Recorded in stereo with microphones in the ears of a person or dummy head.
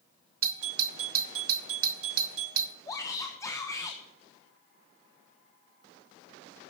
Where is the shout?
15° left (ahead or behind), 1.0 m.